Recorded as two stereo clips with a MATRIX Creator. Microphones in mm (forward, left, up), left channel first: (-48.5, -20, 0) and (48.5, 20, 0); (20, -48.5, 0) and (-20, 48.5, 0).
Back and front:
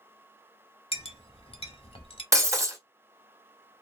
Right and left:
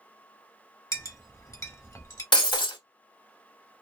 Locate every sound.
0.9 s a clink: 130° right, 0.7 m
2.3 s breaking glass: 35° right, 0.8 m